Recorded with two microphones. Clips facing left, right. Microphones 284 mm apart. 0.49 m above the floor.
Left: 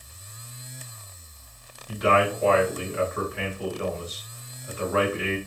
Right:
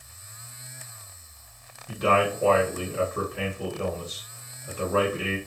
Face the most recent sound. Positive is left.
turn(degrees=-40)  # may be behind; listen again after turning